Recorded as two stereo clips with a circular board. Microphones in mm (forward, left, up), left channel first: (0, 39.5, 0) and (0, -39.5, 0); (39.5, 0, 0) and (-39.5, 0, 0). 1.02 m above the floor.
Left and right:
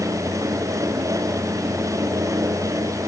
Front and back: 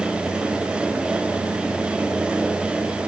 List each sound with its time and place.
Only background noise.